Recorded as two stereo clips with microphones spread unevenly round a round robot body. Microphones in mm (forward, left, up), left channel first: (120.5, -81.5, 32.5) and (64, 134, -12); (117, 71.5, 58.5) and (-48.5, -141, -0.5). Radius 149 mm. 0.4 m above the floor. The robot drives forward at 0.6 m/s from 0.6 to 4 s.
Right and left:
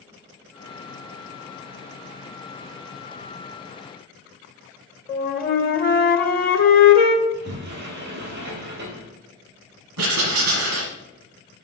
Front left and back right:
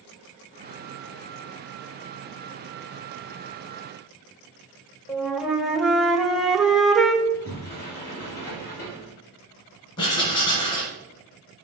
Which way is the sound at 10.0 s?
130° left.